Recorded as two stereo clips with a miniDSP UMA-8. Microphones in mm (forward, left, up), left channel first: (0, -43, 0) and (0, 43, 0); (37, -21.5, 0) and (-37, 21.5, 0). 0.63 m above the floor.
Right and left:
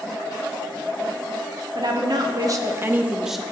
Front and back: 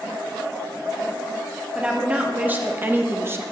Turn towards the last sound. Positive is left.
turn(degrees=-175)